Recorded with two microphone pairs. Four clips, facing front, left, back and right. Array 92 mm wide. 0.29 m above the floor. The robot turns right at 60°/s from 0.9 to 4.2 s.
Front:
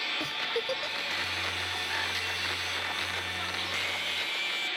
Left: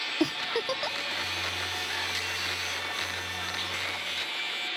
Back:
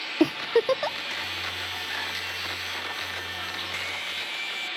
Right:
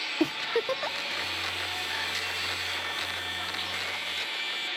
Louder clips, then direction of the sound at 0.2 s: Right 1 dB, back 14 dB; 175° left.